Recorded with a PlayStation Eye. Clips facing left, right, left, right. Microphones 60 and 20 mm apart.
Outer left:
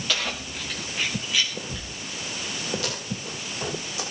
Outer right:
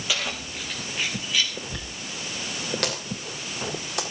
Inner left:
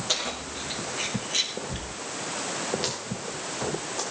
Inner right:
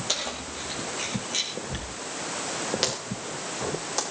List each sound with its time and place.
0.1 s keys jangling: 10° right (ahead or behind), 6.5 m; by 1.5 s 5° left (ahead or behind), 6 m
1.7 s a dropped coin: 70° right (ahead or behind), 7 m